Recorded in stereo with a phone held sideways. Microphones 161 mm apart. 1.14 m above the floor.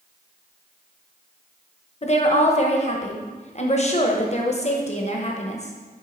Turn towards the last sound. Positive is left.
turn(degrees=45)  # may be behind; listen again after turning